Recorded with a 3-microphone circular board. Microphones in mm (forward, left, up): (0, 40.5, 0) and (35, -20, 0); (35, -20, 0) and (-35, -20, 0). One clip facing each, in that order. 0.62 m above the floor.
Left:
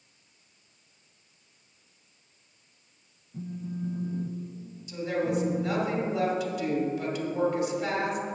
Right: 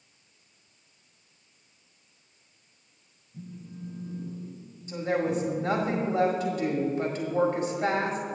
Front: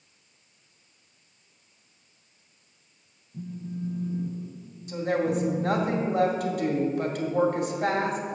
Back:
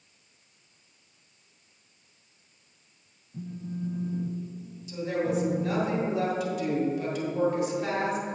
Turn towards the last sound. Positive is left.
turn(degrees=-20)